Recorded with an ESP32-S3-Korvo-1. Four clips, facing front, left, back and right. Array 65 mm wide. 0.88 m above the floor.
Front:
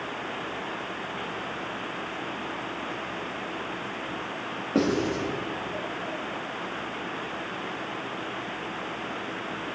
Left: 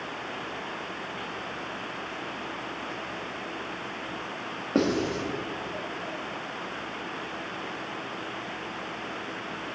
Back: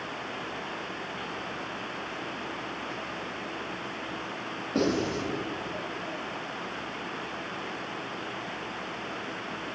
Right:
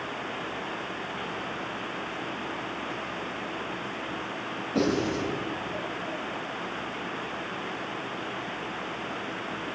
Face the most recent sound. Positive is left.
turn(degrees=65)